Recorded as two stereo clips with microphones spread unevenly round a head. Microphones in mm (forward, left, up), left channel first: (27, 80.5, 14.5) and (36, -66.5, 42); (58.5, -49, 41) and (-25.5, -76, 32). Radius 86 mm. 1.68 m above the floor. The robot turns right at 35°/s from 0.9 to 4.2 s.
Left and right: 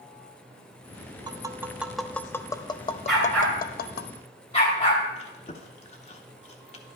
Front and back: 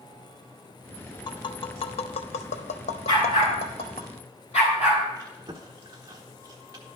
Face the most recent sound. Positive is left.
turn(degrees=135)